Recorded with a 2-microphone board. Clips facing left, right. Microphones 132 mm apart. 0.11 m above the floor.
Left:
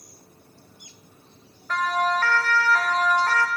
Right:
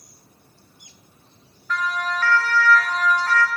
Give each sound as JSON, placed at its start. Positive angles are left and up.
{"t": 1.7, "sound": "a siren", "side_deg": 50, "distance_m": 8.0}